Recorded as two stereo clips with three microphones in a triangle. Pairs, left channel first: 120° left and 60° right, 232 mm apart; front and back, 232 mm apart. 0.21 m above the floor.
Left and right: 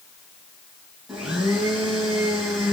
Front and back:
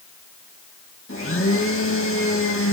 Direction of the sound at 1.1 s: 30° left.